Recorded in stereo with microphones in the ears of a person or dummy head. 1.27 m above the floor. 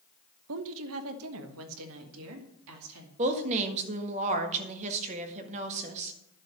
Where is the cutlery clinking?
I don't hear cutlery clinking.